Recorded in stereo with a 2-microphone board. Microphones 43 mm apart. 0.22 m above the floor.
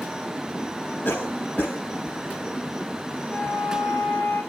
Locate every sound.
1.1 s a cough: 55° left (ahead or behind), 7 m
3.3 s a flute: 60° left (ahead or behind), 8 m